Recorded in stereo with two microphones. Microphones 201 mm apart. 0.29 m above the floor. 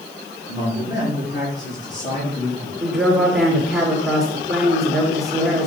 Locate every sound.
0.5 s a man speaking: 60° left (ahead or behind), 4 m; by 2.7 s 65° left (ahead or behind), 5.5 m
2.8 s a woman speaking: centre (ahead or behind), 3.5 m